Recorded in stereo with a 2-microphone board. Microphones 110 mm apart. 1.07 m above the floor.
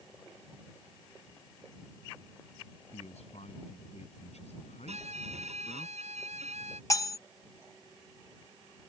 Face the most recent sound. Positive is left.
turn(degrees=30)  # may be behind; listen again after turning